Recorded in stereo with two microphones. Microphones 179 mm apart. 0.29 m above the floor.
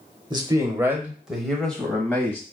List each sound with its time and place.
0.3 s a man speaking: 25° right (ahead or behind), 0.9 m; by 2.4 s 15° left (ahead or behind), 1.4 m